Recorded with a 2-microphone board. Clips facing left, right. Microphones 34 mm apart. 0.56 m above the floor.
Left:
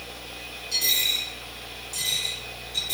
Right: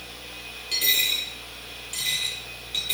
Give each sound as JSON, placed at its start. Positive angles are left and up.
{"t": 0.7, "sound": "a dropped coin", "side_deg": -55, "distance_m": 6.5}